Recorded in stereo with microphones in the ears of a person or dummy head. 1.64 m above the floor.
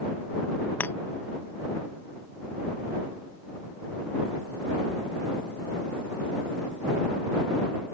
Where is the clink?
5° left (ahead or behind).